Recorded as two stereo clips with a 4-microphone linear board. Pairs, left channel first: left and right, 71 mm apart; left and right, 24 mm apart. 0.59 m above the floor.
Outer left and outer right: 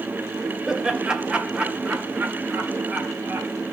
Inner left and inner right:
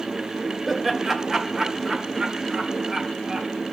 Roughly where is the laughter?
Centre.